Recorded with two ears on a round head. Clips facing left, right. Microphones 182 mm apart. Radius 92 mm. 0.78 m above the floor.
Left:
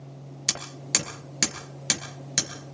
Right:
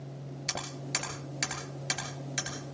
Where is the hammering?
55° left (ahead or behind), 7 m.